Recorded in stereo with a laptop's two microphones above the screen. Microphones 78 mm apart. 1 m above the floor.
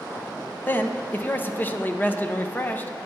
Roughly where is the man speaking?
Left.